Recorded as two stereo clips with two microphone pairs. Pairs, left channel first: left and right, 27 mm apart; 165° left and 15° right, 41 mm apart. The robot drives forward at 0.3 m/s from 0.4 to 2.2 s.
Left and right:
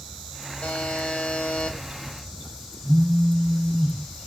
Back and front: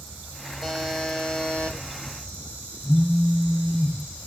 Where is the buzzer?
70° left, 0.7 m; by 1.8 s 100° left, 0.7 m.